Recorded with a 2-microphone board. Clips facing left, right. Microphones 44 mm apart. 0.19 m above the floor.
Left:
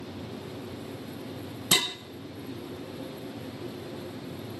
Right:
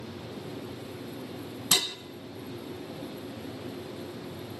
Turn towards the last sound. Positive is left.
turn(degrees=25)  # may be behind; listen again after turning